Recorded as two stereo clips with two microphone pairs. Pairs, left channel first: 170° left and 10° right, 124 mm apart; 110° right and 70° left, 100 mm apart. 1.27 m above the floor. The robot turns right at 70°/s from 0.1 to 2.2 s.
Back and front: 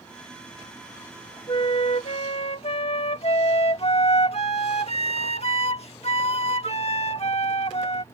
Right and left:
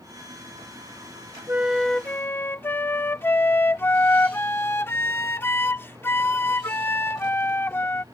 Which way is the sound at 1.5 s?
130° left.